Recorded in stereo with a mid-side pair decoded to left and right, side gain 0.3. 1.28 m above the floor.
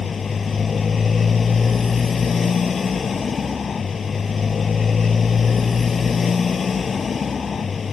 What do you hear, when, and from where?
0.0 s a motorcycle: 55° left